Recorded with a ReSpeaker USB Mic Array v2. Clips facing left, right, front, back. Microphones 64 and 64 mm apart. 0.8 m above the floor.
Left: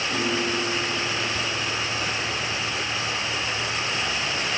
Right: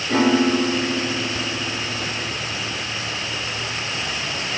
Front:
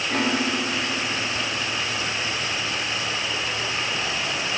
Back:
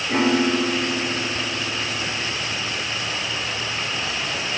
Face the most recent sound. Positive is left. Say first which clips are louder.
# right 11 dB, back 6 dB
turn(degrees=-105)